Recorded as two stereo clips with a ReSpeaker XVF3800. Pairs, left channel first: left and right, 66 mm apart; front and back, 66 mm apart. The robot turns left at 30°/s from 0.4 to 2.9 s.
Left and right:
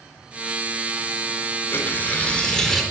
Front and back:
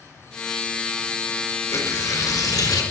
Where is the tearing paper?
35° left, 4.5 m; by 2.8 s 5° left, 4.5 m.